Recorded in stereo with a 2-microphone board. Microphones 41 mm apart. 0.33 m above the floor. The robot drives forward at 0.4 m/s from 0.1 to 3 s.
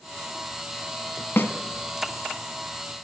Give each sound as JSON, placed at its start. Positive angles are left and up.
{"t": 1.4, "sound": "a snare drum", "side_deg": 75, "distance_m": 0.9}